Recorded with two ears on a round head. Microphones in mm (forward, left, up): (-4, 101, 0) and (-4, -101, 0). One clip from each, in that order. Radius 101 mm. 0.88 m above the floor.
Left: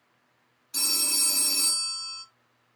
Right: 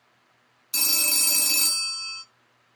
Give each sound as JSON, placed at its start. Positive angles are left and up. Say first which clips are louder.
{"t": 0.7, "sound": "a phone ringing", "louder": "right 3 dB", "side_deg": -75, "distance_m": 0.6}